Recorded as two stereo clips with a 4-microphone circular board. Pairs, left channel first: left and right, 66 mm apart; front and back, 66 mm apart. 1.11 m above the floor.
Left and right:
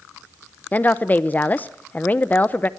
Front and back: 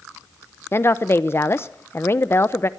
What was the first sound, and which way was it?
A woman speaking, 35° left.